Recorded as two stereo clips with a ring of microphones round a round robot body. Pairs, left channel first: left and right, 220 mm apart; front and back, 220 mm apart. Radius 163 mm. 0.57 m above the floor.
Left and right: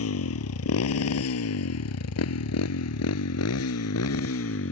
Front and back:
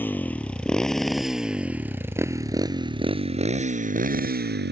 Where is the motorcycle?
80° left; by 4.7 s 140° left.